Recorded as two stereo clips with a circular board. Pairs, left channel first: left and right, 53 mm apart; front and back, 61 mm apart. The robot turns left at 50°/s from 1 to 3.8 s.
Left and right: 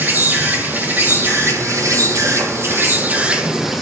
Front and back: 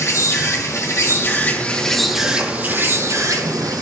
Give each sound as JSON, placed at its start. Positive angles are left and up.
{"t": 0.0, "sound": "an insect", "azimuth_deg": -40, "distance_m": 1.6}